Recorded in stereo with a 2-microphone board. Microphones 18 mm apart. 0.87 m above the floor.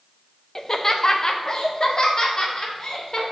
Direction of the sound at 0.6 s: 20° left (ahead or behind).